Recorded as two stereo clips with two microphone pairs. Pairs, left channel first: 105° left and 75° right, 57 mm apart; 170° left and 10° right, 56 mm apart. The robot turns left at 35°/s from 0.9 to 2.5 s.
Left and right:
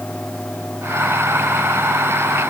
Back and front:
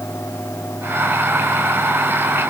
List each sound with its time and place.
Only background noise.